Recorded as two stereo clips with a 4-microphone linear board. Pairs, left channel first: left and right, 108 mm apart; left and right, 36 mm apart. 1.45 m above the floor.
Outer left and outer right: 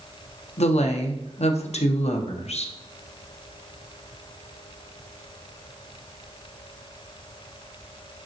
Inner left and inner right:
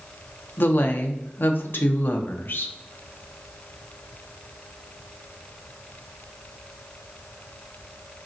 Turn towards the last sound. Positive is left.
turn(degrees=75)  # may be behind; listen again after turning